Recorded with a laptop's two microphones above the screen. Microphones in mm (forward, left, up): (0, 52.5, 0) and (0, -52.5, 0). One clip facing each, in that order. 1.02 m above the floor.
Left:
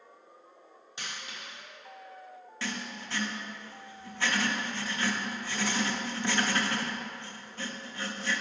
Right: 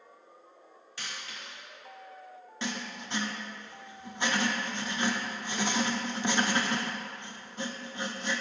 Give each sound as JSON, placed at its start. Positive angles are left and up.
{"t": 1.0, "sound": "a dropped coin", "side_deg": 20, "distance_m": 1.4}
{"t": 2.6, "sound": "writing", "side_deg": -20, "distance_m": 0.6}